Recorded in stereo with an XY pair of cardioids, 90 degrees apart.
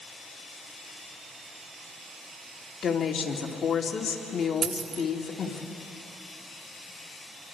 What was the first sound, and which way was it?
A woman speaking, 50° left.